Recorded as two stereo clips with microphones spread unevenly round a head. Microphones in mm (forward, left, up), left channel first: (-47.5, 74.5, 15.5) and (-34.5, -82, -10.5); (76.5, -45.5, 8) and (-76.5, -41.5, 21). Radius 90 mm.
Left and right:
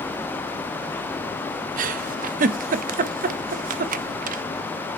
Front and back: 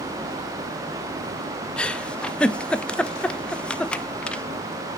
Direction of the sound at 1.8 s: 85° right.